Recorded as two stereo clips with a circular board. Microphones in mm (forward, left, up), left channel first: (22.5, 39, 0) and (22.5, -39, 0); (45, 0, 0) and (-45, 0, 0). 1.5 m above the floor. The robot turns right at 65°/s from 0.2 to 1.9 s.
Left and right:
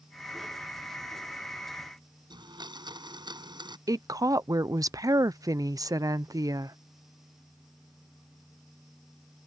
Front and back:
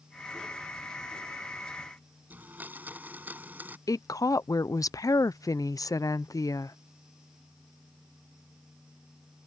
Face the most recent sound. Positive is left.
turn(degrees=-50)